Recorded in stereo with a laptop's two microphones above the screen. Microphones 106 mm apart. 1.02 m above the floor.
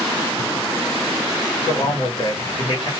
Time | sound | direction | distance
1.6 | a man speaking | 60° left (ahead or behind) | 1.1 m